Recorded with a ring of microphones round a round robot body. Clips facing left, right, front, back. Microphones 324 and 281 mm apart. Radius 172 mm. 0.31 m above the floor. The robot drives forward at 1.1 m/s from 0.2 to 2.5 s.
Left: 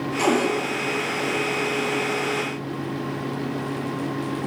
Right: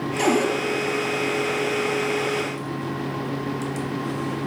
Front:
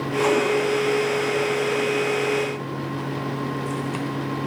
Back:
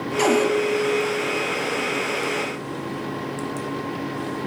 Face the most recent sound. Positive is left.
turn(degrees=-175)